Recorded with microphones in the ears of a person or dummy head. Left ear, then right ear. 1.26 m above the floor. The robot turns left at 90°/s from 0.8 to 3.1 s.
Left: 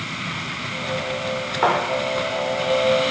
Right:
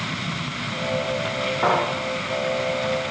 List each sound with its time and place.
1.6 s a thud: 35° left (ahead or behind), 2 m; by 1.8 s 45° left (ahead or behind), 2 m